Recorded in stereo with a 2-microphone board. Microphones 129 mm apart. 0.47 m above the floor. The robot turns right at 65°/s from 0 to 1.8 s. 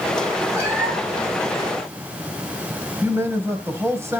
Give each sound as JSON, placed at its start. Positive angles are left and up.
{"t": 0.5, "sound": "a cat meowing", "azimuth_deg": -30, "distance_m": 7.0}
{"t": 3.0, "sound": "a man speaking", "side_deg": -20, "distance_m": 3.0}